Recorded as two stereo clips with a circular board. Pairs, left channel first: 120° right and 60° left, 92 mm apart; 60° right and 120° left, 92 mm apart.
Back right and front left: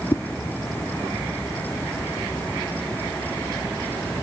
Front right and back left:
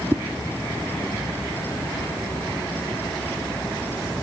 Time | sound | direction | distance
0.1 | a whoosh | 175° right | 1.0 m